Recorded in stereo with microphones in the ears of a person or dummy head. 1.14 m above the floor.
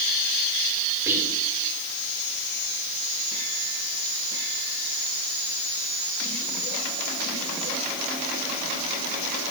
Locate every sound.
1.1 s whispering: 15° right (ahead or behind), 3.5 m